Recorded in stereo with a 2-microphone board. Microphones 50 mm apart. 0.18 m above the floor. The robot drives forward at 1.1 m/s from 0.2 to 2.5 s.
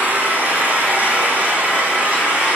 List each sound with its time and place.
0.0 s an engine running: 35° right (ahead or behind), 6.5 m; by 2.5 s 25° right (ahead or behind), 8.5 m